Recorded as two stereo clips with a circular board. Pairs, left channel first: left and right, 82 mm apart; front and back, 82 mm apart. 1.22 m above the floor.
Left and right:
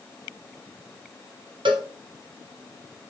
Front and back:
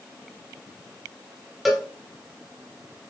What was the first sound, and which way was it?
A cowbell, 95° right.